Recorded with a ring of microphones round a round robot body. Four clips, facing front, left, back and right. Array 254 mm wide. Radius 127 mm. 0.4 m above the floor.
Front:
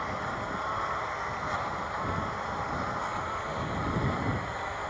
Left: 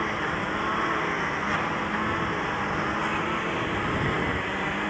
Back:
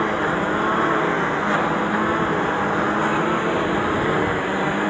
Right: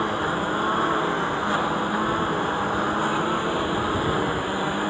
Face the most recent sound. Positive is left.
turn(degrees=-165)